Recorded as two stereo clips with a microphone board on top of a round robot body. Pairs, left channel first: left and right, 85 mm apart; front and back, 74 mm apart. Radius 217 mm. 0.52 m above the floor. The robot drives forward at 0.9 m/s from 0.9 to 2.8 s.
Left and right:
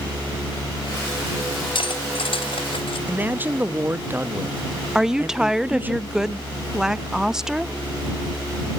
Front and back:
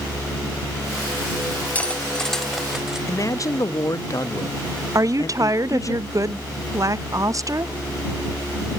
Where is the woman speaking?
170° right, 0.7 m.